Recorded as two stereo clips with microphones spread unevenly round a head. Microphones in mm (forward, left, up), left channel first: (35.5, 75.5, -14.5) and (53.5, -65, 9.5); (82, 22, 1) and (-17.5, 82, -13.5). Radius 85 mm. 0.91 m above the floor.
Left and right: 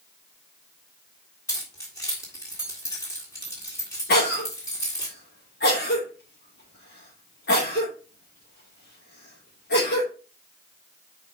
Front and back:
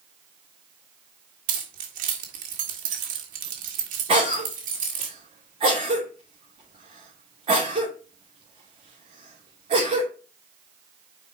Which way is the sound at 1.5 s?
170° left.